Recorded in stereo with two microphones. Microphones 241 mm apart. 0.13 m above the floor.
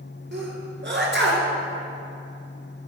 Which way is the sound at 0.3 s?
50° right (ahead or behind).